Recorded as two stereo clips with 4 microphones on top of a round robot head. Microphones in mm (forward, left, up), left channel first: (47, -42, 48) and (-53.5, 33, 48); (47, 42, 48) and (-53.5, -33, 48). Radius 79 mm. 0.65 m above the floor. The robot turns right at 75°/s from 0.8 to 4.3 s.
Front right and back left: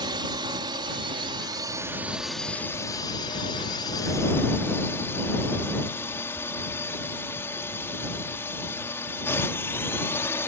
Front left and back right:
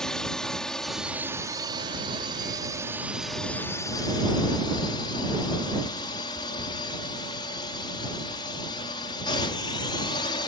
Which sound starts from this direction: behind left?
A drone, at 0.0 s.